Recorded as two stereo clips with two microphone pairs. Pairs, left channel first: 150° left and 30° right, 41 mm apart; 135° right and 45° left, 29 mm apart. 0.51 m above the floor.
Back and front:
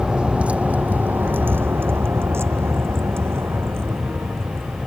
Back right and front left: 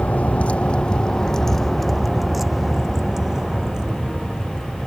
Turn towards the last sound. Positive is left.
turn(degrees=-15)